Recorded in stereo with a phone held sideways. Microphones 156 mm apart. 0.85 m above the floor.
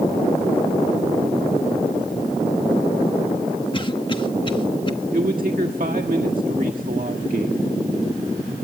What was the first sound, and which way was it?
A cough, 35° left (ahead or behind).